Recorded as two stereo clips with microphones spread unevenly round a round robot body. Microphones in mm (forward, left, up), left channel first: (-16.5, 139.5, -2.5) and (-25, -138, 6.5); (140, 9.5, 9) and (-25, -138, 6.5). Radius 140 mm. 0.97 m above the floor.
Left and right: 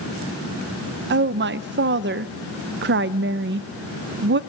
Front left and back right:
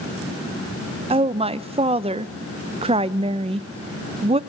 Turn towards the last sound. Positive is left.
turn(degrees=-95)